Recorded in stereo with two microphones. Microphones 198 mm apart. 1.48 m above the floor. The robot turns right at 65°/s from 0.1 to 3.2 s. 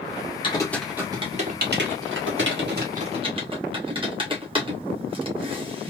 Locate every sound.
0.4 s typing on a keyboard: 25° left (ahead or behind), 2.0 m; by 5.9 s 25° right (ahead or behind), 2.0 m